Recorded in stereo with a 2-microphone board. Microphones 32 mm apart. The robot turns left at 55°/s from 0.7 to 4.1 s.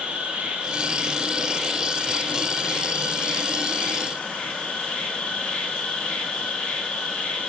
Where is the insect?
125° right, 1.6 m; by 7.5 s 50° left, 1.6 m.